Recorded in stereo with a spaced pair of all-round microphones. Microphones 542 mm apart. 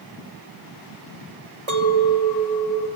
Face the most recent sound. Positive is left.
turn(degrees=-80)